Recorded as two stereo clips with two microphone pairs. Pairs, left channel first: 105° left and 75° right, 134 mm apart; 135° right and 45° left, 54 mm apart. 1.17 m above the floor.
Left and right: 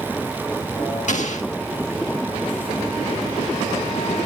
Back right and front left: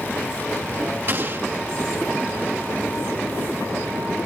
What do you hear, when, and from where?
1.1 s an explosion: 90° left, 1.6 m